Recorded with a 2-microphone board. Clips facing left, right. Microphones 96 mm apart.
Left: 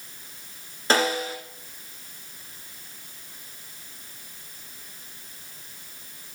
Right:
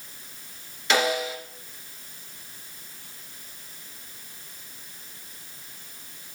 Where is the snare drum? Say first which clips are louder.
Left 1 dB; 35° left (ahead or behind), 2 m.